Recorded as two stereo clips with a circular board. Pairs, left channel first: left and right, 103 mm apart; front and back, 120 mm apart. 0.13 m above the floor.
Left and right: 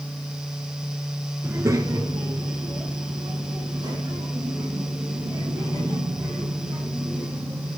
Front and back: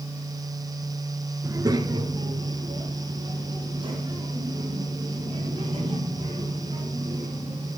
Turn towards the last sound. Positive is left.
turn(degrees=-135)